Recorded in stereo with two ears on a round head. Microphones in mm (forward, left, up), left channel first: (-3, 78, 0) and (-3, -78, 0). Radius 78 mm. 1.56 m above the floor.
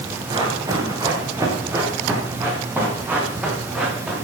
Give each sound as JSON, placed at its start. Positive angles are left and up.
{"t": 0.3, "sound": "running footsteps", "side_deg": -25, "distance_m": 6.5}